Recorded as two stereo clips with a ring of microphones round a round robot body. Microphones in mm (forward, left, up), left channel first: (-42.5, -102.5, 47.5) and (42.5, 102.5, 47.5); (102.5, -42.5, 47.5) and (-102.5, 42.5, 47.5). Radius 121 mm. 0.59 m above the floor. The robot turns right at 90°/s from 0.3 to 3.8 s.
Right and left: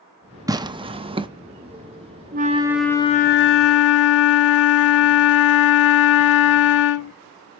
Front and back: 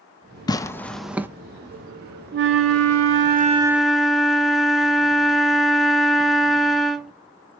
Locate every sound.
0.5 s tearing paper: 20° left, 0.6 m; by 1.3 s 90° left, 0.6 m
2.3 s a flute: 115° left, 0.7 m; by 7.1 s 115° right, 0.7 m